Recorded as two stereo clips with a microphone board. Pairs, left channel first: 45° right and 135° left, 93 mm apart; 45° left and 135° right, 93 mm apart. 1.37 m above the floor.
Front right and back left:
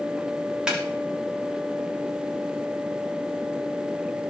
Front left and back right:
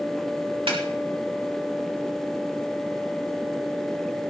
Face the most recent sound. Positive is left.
turn(degrees=-145)